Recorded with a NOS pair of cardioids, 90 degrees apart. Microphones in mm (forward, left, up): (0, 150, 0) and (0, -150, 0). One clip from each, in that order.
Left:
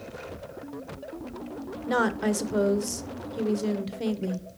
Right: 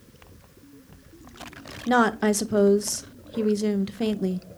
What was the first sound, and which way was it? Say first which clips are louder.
A woman speaking: right 5 dB; 20° right.